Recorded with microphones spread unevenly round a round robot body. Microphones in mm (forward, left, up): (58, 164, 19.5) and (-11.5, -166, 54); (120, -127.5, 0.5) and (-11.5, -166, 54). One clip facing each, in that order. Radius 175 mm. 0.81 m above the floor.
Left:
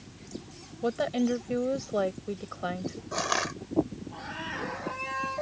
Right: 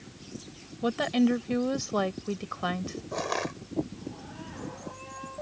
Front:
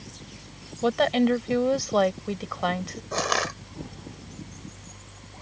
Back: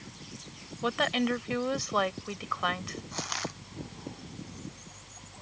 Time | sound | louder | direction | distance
0.8 | a woman speaking | right 3 dB, front 8 dB | 35° right | ?
3.1 | crushing | right 2 dB, front 13 dB | 25° left | ?